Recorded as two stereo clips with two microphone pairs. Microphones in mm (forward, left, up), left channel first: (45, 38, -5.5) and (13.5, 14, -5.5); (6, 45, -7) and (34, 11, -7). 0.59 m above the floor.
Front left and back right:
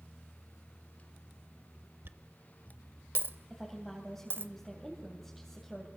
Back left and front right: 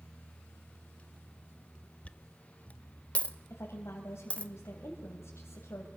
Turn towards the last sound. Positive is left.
turn(degrees=125)